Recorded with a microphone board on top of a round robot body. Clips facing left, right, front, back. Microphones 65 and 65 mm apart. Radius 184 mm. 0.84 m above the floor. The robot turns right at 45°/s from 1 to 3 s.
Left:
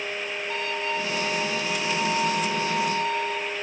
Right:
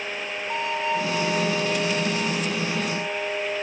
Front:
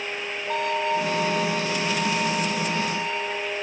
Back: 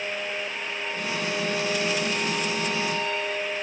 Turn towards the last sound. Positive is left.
turn(degrees=70)